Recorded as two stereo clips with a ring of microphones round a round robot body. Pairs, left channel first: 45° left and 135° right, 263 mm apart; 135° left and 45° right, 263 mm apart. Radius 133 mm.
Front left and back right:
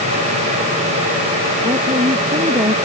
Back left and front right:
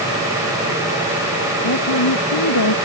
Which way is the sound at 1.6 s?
150° left.